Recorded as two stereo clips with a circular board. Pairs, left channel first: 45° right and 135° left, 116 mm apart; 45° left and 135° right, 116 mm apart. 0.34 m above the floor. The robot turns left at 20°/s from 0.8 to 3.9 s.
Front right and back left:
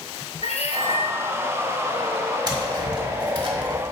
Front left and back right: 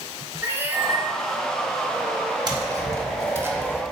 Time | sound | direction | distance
0.4 | a cat meowing | 65° right | 1.4 m
2.5 | tapping | straight behind | 1.3 m